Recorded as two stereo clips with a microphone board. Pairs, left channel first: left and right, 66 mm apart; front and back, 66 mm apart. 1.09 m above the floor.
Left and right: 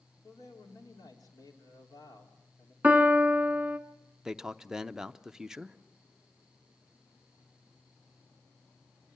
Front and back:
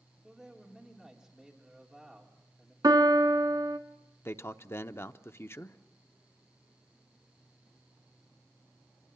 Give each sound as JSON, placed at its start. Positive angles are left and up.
{"t": 0.2, "sound": "a man speaking", "azimuth_deg": 95, "distance_m": 3.5}
{"t": 2.8, "sound": "a piano", "azimuth_deg": -160, "distance_m": 1.2}
{"t": 4.2, "sound": "a man speaking", "azimuth_deg": -15, "distance_m": 0.6}